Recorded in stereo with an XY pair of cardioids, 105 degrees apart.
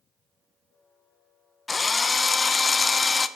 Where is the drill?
30° left, 0.6 m.